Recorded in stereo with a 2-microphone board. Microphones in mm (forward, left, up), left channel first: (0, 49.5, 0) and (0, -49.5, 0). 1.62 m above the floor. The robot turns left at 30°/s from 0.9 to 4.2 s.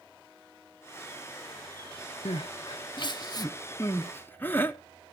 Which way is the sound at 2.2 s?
65° left (ahead or behind).